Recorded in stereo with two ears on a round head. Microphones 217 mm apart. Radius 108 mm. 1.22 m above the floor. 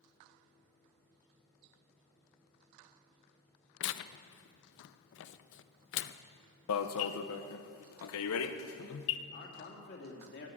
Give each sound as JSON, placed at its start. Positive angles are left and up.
{"t": 3.8, "sound": "tearing paper", "side_deg": 55, "distance_m": 0.5}
{"t": 6.7, "sound": "an alarm", "side_deg": 60, "distance_m": 0.7}
{"t": 9.3, "sound": "a man speaking", "side_deg": 45, "distance_m": 2.5}